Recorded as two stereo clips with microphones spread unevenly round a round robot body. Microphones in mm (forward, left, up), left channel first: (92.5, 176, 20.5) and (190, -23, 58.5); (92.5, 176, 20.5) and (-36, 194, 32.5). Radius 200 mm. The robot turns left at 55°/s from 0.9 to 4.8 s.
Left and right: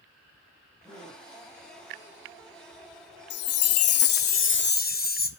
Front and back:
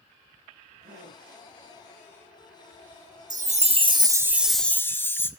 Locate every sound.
0.8 s a gasp: 155° right, 4 m; by 1.2 s 175° right, 4 m
3.3 s a chime: 150° left, 1.8 m; by 5.3 s 65° left, 1.8 m